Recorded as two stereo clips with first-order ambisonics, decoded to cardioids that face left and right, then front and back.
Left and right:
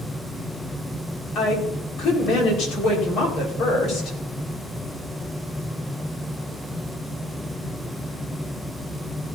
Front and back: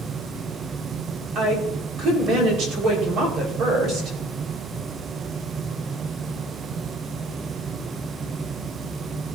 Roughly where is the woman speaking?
Behind left.